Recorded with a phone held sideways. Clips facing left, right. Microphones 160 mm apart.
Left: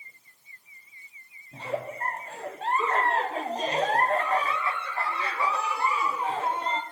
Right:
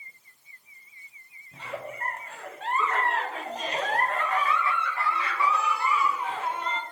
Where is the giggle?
30° left (ahead or behind), 0.6 m.